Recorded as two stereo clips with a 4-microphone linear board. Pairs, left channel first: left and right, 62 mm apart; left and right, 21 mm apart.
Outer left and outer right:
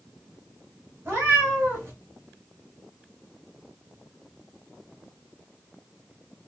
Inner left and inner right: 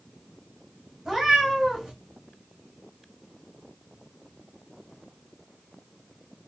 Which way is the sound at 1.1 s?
30° right (ahead or behind).